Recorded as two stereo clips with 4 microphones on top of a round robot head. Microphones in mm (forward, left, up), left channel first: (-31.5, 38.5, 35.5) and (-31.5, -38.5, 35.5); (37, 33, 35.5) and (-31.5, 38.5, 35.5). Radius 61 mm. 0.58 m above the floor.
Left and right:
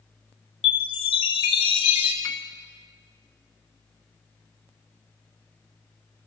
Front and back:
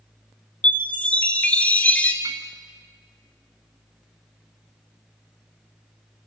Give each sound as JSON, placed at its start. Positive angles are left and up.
{"t": 0.6, "sound": "a chime", "azimuth_deg": 65, "distance_m": 2.5}
{"t": 2.2, "sound": "a piano", "azimuth_deg": 140, "distance_m": 1.8}